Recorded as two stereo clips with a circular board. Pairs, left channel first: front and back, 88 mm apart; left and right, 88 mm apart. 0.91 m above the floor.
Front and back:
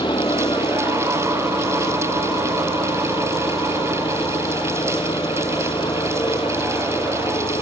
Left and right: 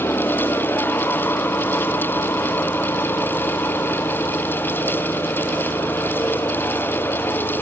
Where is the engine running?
25° left.